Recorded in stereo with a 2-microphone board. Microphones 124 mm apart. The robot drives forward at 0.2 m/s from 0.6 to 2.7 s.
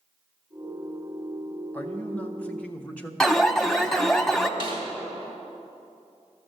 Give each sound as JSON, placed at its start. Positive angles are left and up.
{"t": 1.7, "sound": "a man speaking", "side_deg": 10, "distance_m": 0.8}
{"t": 3.2, "sound": "an alarm", "side_deg": 5, "distance_m": 0.6}
{"t": 4.6, "sound": "a snare drum", "side_deg": -40, "distance_m": 2.0}